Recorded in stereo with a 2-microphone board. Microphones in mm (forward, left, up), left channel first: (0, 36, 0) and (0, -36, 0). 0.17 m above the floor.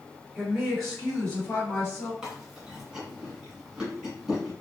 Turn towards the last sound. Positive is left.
turn(degrees=-10)  # may be behind; listen again after turning